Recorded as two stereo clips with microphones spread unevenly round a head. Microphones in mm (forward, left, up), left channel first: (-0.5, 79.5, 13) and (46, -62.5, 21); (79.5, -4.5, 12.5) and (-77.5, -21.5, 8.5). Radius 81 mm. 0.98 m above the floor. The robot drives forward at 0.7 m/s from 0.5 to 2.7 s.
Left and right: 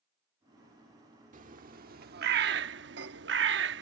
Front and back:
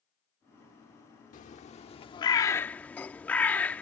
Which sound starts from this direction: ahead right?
A bird, at 1.3 s.